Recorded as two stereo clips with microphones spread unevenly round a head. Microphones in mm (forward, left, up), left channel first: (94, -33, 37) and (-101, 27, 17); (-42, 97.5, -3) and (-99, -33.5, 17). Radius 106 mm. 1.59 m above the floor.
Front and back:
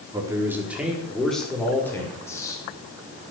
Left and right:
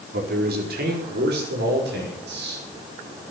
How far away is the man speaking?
About 4.5 m.